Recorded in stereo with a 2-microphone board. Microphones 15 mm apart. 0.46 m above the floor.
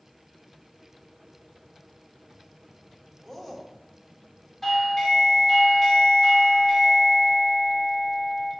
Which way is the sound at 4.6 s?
20° left (ahead or behind).